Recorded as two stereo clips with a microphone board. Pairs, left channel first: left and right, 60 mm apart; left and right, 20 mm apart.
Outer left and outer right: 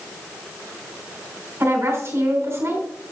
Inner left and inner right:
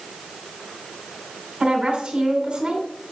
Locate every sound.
1.6 s a woman speaking: 45° right (ahead or behind), 3 m